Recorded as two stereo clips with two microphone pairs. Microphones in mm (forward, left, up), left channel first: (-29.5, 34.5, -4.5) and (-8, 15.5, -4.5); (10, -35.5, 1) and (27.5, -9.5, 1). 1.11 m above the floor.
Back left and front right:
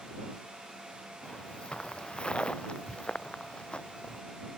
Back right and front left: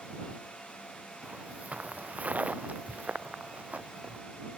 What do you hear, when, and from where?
1.2 s footsteps: 85° left; by 4.2 s 90° left